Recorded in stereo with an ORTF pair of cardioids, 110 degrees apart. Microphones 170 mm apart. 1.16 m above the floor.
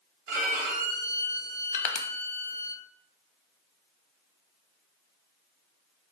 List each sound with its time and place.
0.3 s a violin: 70° right, 0.9 m
1.7 s crushing: 45° left, 0.5 m